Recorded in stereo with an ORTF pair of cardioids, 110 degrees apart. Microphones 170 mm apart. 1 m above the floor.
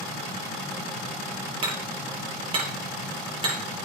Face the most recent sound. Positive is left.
turn(degrees=-35)